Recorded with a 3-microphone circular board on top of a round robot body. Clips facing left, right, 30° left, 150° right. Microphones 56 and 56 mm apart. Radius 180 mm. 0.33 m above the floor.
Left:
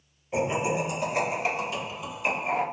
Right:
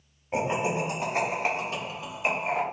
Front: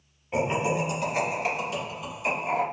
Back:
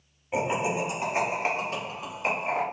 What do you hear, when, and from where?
0.3 s laughter: 70° right, 1.8 m; by 2.6 s 145° right, 2.5 m